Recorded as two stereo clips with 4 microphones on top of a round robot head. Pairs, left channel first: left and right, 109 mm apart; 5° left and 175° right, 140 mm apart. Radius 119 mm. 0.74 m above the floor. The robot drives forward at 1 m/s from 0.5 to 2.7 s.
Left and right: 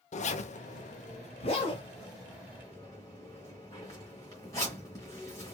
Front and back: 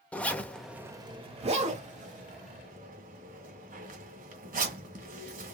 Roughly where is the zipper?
Left.